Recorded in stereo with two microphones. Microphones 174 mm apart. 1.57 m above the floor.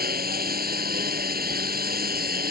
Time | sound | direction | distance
0.0 | a lawn mower | 60° right (ahead or behind) | ?